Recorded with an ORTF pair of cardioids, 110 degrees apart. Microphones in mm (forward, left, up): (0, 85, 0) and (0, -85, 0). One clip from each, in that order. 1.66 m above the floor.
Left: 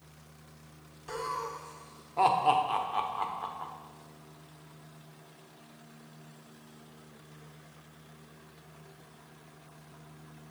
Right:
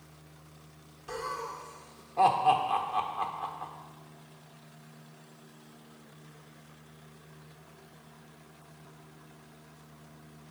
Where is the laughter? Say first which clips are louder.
Left 1 dB; 10° left, 0.9 m.